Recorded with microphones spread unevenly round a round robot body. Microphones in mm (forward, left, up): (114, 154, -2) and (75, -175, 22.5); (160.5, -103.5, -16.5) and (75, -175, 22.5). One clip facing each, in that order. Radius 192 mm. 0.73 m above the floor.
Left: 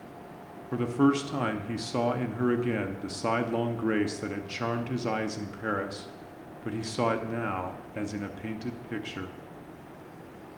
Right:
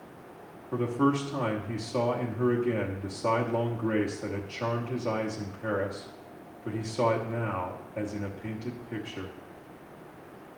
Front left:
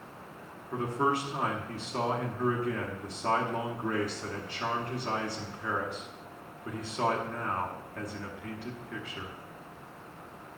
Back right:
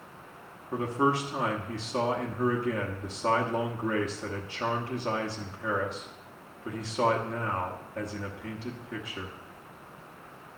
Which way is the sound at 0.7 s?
130° left.